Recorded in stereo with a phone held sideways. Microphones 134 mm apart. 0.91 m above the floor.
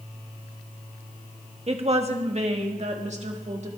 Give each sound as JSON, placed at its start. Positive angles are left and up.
{"t": 1.7, "sound": "a woman speaking", "side_deg": -45, "distance_m": 1.4}